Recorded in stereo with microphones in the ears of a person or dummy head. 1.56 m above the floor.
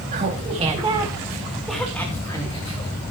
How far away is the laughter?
About 2.5 m.